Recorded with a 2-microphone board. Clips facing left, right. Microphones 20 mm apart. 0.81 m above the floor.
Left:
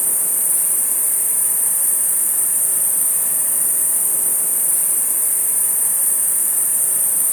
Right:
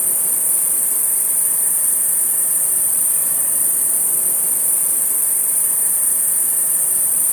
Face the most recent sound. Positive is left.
turn(degrees=35)  # may be behind; listen again after turning